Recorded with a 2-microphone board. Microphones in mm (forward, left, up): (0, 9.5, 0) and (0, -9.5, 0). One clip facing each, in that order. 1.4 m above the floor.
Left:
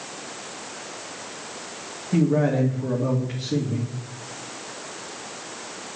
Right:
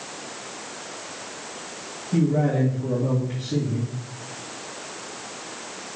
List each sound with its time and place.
2.1 s a man speaking: 55° left (ahead or behind), 2.5 m